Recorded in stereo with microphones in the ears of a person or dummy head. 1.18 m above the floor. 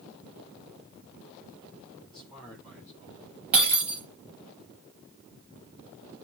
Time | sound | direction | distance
2.0 | a man speaking | 5° left (ahead or behind) | 8 m
3.5 | breaking glass | 10° right (ahead or behind) | 4.5 m